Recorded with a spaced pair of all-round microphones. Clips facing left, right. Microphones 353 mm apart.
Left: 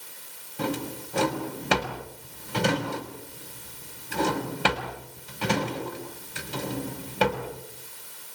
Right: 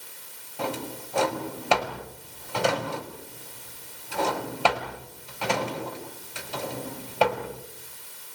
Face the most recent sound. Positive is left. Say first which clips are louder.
# left 2 dB
turn(degrees=25)  # may be behind; listen again after turning